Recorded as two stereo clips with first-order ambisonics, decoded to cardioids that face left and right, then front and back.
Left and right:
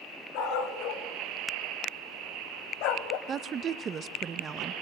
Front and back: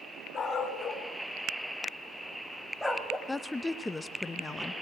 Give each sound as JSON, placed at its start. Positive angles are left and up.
{"t": 0.3, "sound": "a dog barking", "azimuth_deg": 70, "distance_m": 3.5}
{"t": 3.3, "sound": "a woman speaking", "azimuth_deg": -70, "distance_m": 0.6}